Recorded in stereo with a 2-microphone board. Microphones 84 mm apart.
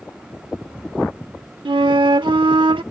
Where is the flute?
80° right.